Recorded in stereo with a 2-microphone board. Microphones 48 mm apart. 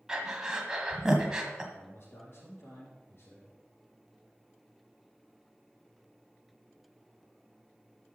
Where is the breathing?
15° right (ahead or behind), 1.5 m.